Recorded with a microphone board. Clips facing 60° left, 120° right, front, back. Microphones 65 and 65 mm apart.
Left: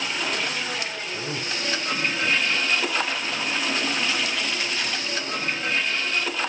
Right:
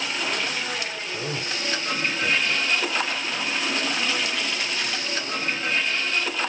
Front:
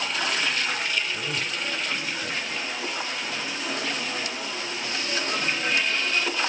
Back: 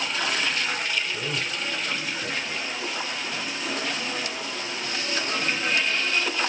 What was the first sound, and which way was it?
A man speaking, 110° right.